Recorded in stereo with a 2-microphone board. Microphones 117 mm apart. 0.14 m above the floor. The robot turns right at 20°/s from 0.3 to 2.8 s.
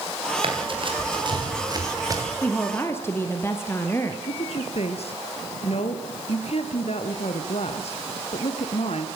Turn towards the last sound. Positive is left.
turn(degrees=60)  # may be behind; listen again after turning